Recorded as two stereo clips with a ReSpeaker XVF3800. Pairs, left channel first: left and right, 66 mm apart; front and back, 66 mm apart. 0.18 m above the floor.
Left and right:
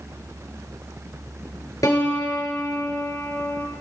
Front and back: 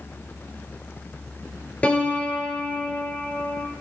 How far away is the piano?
About 1.7 m.